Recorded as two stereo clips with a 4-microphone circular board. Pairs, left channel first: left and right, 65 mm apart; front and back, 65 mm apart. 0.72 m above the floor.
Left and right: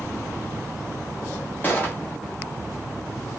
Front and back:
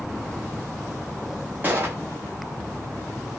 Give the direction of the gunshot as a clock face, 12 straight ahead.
7 o'clock.